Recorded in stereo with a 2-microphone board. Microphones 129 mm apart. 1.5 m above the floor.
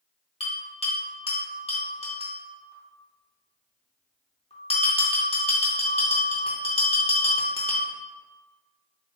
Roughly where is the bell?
Left.